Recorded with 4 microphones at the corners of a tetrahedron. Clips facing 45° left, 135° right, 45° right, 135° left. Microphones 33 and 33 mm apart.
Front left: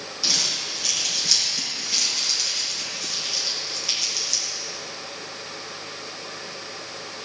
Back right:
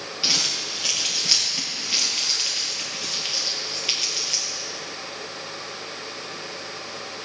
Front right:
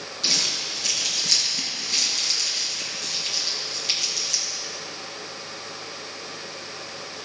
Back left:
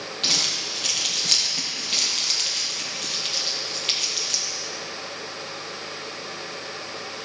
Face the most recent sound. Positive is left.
turn(degrees=175)